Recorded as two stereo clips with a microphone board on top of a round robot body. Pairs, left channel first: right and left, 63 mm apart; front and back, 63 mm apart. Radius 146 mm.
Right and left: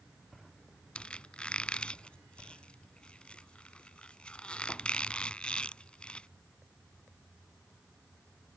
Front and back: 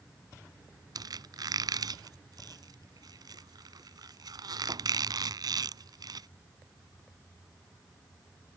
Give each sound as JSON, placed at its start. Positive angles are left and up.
{"t": 0.9, "sound": "a squeak", "azimuth_deg": -165}